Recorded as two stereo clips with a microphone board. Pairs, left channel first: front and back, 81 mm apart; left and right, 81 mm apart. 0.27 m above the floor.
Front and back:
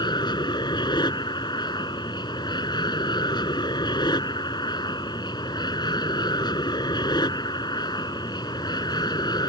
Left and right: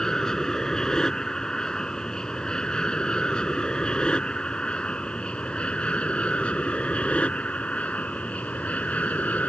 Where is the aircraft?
10° left; by 9.5 s 20° left.